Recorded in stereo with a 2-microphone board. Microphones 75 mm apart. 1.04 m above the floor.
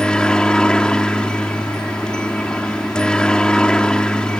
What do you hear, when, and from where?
0.0 s a helicopter: 10° left (ahead or behind)